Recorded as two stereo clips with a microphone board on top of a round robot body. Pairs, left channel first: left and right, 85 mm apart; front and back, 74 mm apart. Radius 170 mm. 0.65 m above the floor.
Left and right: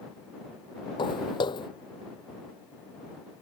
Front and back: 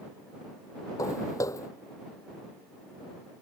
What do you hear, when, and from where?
1.0 s footsteps: 50° left